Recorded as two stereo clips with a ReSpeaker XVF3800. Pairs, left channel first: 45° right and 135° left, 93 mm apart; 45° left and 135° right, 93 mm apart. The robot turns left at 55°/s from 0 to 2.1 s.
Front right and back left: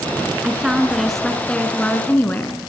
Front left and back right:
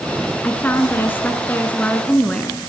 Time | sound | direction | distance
0.4 | a woman speaking | 80° left | 1.4 m